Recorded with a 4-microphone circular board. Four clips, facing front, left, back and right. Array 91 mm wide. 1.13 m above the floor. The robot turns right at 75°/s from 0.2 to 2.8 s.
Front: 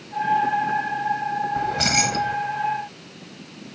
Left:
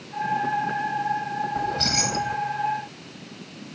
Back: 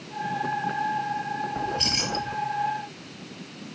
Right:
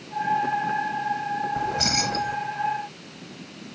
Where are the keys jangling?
30° right; by 2.4 s 30° left.